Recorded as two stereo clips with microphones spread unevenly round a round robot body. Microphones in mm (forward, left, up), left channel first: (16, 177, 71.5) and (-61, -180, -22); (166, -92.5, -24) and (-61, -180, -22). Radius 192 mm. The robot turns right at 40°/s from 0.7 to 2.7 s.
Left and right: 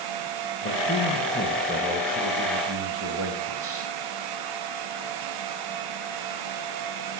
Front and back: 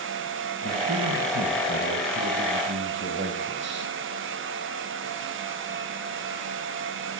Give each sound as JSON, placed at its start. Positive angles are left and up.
{"t": 0.6, "sound": "a man speaking", "azimuth_deg": 150, "distance_m": 1.4}